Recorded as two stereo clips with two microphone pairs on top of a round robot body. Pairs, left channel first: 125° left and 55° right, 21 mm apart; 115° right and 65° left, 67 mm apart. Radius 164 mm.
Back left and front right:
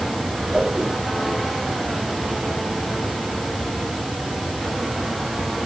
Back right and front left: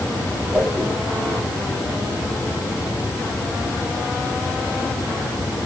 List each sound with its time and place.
0.5 s a whoosh: 20° right, 9 m